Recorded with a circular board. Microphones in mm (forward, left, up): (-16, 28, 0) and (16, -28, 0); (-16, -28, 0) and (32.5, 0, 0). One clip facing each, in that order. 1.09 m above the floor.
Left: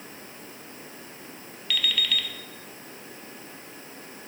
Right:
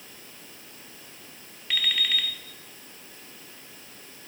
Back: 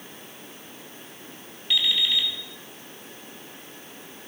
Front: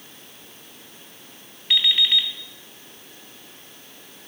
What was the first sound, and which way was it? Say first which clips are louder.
An alarm clock: even, front 4 dB; 5° right.